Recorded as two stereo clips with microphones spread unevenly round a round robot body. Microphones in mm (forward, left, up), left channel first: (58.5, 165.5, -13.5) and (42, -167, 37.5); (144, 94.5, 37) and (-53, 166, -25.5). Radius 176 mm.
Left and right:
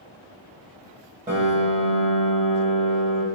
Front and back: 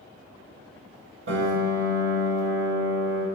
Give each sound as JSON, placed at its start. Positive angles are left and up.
{"t": 1.3, "sound": "a piano", "azimuth_deg": -165, "distance_m": 0.8}